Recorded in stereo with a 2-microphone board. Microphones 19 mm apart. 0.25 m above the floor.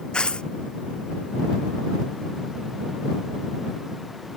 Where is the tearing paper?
55° left (ahead or behind).